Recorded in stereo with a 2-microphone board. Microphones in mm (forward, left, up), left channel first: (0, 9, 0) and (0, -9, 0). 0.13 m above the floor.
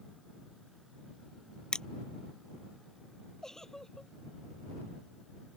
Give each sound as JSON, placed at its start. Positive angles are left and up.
{"t": 1.7, "sound": "crushing", "side_deg": 50}
{"t": 3.4, "sound": "a giggle", "side_deg": 30}